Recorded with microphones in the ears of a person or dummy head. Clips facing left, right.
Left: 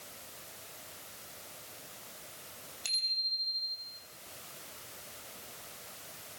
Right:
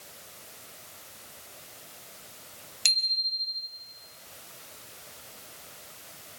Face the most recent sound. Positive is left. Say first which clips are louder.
# right 6 dB
turn(degrees=-80)